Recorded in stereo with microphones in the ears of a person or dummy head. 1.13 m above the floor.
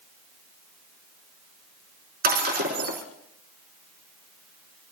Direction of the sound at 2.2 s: 60° right (ahead or behind).